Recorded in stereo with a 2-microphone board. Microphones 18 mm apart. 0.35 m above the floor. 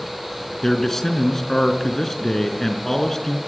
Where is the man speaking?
25° left (ahead or behind), 4.5 m.